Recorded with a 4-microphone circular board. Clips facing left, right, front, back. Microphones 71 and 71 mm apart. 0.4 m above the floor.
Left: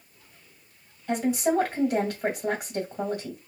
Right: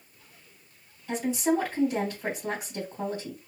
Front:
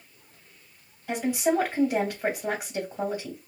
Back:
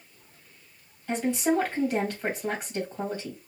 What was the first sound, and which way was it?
A woman speaking, 75° left.